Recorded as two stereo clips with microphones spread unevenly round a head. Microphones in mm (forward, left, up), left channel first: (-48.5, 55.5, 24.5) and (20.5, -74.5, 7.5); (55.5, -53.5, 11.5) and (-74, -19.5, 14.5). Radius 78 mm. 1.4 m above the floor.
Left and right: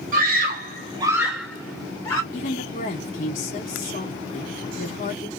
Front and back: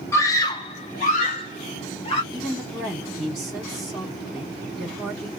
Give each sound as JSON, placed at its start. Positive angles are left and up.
{"t": 0.1, "sound": "a scream", "azimuth_deg": -85, "distance_m": 0.9}
{"t": 2.3, "sound": "a woman speaking", "azimuth_deg": 75, "distance_m": 2.0}